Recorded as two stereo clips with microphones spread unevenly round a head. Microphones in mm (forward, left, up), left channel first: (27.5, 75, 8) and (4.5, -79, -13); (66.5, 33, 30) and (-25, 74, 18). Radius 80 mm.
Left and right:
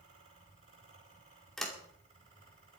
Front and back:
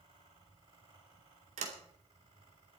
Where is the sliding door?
165° left, 2.5 m.